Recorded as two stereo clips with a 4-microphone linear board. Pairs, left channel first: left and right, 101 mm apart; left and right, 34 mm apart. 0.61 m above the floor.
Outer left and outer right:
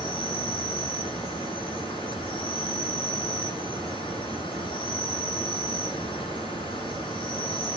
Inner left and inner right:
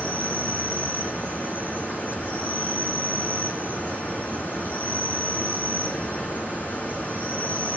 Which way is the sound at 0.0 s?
60° left (ahead or behind).